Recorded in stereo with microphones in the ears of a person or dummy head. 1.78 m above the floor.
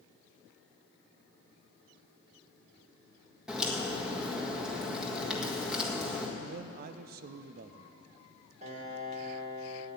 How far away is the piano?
About 3 m.